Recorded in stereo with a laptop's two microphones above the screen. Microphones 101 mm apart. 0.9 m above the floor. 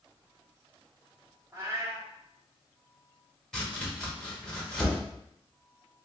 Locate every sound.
1.5 s a cat meowing: 30° right (ahead or behind), 0.7 m
3.5 s chopping: 5° left (ahead or behind), 1.2 m